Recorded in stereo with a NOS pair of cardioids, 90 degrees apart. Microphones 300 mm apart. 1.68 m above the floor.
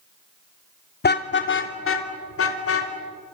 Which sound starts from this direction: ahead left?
A car horn, at 1.0 s.